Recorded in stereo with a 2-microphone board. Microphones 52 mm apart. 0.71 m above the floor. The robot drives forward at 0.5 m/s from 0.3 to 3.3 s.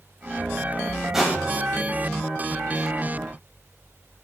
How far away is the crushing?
About 2 m.